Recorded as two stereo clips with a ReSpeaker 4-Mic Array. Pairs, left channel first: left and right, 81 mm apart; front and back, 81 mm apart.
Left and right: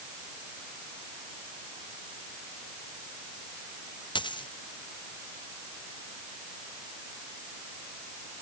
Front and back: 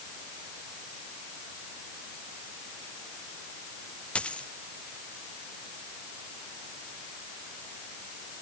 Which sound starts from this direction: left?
A dropped coin, at 4.2 s.